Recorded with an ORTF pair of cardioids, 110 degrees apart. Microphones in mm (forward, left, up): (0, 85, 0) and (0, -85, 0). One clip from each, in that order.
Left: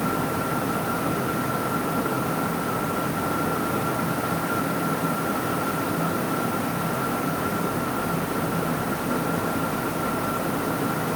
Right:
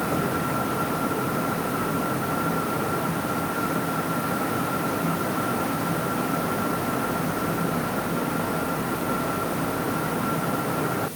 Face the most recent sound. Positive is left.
No sound to turn to.